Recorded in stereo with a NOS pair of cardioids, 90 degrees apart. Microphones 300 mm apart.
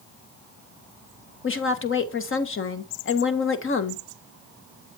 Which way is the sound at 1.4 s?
40° left.